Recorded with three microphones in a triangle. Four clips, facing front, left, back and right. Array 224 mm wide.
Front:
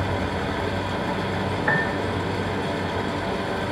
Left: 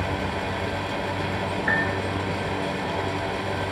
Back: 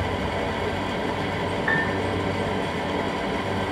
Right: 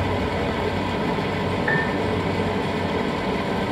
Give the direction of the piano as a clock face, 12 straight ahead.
12 o'clock.